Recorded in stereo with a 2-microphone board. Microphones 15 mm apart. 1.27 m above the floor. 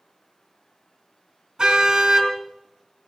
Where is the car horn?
50° right (ahead or behind), 3 m.